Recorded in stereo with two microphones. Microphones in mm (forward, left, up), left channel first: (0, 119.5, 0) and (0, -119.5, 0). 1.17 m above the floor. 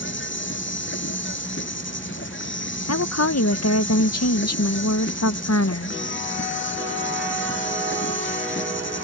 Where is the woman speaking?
75° left (ahead or behind).